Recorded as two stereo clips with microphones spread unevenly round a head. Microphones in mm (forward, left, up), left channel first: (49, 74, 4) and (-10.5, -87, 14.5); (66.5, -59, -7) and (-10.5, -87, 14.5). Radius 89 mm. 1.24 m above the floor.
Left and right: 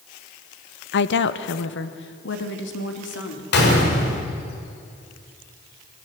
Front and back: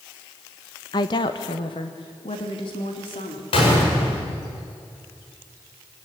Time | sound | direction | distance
0.9 | a woman speaking | 60° left | 0.9 m
3.5 | a gunshot | 45° left | 6 m